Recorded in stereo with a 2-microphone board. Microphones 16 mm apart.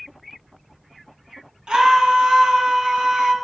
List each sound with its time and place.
1.7 s a scream: 65° right (ahead or behind), 2.5 m